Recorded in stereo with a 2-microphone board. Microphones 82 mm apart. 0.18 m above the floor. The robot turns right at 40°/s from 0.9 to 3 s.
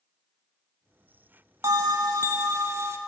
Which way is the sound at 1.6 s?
105° right.